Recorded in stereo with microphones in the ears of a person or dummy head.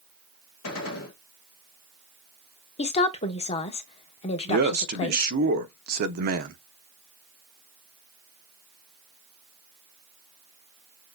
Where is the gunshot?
90° left, 1.3 m.